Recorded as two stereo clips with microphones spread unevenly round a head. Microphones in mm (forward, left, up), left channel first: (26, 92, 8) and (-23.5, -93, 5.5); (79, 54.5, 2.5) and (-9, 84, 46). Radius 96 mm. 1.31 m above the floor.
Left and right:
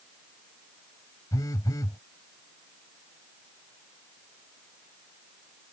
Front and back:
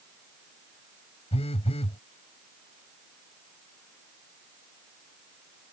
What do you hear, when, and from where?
1.3 s a phone buzzing: 5° left